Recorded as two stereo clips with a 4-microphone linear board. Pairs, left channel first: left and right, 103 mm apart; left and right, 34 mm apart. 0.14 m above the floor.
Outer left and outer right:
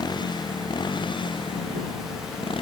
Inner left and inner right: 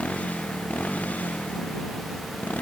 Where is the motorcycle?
45° left (ahead or behind); by 2.6 s 55° left (ahead or behind).